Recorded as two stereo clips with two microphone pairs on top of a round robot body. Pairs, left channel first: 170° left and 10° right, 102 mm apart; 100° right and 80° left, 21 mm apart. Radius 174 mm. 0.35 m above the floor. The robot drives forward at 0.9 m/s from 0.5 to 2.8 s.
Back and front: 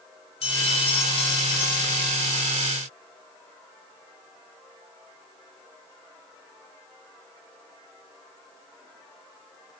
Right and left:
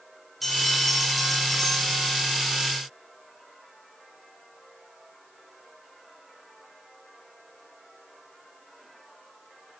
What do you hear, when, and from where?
0.4 s a bell: 175° left, 5 m